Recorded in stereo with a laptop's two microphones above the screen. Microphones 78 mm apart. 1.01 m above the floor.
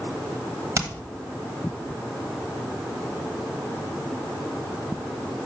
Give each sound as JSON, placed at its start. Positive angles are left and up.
{"t": 0.8, "sound": "hammering", "side_deg": -40, "distance_m": 1.4}